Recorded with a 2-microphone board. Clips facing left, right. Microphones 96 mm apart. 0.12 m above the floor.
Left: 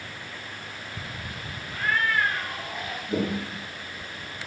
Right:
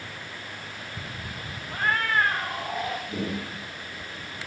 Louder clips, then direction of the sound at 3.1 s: Left 4 dB; 75° left (ahead or behind).